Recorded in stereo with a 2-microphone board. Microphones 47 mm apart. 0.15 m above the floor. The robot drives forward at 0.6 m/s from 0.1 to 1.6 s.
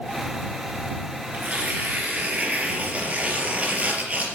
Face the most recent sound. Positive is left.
turn(degrees=-30)  # may be behind; listen again after turning